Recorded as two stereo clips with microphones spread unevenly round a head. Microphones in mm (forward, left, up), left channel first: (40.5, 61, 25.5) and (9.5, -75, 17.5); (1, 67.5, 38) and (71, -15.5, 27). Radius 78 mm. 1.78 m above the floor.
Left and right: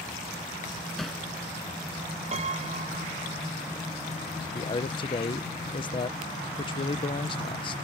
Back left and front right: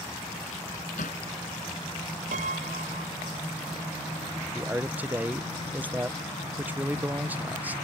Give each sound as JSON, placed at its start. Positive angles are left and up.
{"t": 1.0, "sound": "hammering", "azimuth_deg": 165}
{"t": 2.3, "sound": "a piano", "azimuth_deg": -65}
{"t": 4.5, "sound": "a man speaking", "azimuth_deg": 25}